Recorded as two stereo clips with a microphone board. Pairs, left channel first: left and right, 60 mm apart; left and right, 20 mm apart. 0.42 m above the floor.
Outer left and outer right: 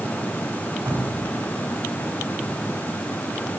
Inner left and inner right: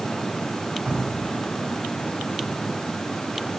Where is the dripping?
65° right (ahead or behind), 3 m.